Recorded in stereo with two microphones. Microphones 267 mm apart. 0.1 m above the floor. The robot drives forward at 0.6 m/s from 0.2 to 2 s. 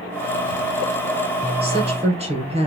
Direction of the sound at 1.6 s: 20° right (ahead or behind).